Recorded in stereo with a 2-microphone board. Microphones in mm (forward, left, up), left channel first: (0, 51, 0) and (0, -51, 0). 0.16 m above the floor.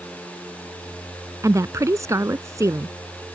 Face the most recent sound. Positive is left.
turn(degrees=-30)  # may be behind; listen again after turning